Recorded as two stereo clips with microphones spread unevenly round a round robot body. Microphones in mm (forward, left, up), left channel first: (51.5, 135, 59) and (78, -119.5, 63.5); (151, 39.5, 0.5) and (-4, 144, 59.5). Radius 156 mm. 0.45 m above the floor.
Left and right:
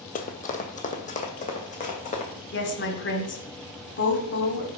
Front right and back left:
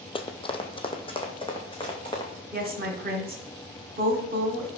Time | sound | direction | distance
0.1 | running footsteps | 40° left | 0.8 m
2.5 | a woman speaking | 105° left | 1.5 m